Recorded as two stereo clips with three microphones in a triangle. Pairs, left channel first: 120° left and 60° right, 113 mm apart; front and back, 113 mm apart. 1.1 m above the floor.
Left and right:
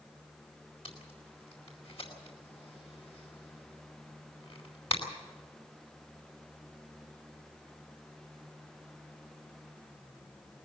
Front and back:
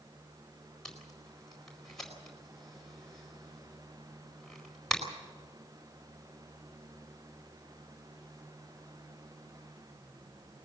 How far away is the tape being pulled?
About 4.5 m.